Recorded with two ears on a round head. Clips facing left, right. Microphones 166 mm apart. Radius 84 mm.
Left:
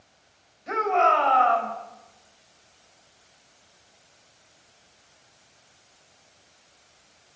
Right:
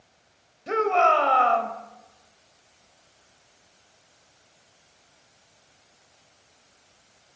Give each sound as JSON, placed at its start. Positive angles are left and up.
{"t": 0.7, "sound": "a shout", "side_deg": -45, "distance_m": 4.0}